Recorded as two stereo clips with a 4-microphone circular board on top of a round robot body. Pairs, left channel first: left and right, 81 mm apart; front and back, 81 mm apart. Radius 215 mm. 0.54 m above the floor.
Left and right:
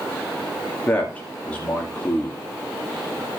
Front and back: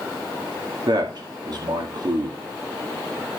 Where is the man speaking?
165° left, 2.5 m.